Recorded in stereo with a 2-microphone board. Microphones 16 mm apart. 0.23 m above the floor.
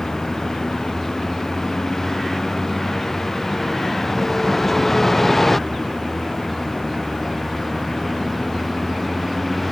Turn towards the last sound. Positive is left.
turn(degrees=5)  # may be behind; listen again after turning